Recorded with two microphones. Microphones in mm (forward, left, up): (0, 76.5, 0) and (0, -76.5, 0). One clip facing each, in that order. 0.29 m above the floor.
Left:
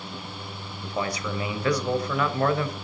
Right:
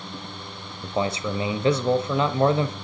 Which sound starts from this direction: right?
A man speaking, at 0.8 s.